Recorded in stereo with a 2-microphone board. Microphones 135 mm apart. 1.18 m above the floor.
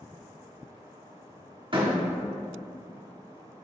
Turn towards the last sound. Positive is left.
turn(degrees=-40)  # may be behind; listen again after turning